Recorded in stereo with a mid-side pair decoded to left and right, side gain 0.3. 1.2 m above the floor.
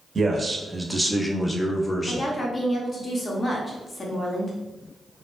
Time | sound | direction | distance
0.1 | a man speaking | 45° right | 0.7 m
2.1 | a woman speaking | 40° left | 0.9 m